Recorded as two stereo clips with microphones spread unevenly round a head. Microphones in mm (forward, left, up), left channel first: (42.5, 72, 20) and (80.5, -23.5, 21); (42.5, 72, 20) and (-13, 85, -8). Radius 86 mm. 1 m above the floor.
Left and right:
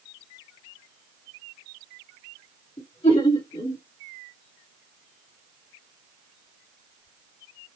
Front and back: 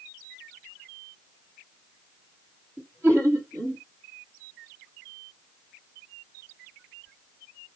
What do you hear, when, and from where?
2.8 s laughter: 150° left, 1.7 m